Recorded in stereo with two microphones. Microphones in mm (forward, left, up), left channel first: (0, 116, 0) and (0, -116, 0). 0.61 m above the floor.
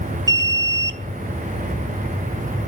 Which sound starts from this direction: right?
An alarm, at 0.3 s.